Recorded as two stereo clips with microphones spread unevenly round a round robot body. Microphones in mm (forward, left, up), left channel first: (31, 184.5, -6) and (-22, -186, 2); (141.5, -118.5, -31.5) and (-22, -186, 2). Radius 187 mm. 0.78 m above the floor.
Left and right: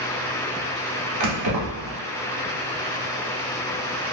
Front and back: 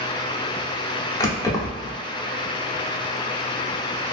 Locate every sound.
1.2 s keys jangling: 50° right, 1.0 m